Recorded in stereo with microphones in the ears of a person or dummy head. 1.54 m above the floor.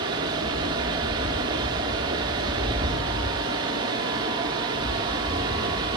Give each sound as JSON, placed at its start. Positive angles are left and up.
{"t": 0.0, "sound": "running water", "side_deg": -20, "distance_m": 1.1}